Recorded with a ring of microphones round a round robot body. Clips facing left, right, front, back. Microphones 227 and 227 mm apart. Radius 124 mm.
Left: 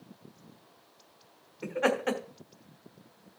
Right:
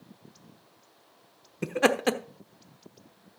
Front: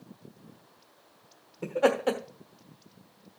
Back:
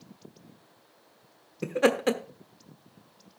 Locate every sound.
1.6 s laughter: 120° right, 1.1 m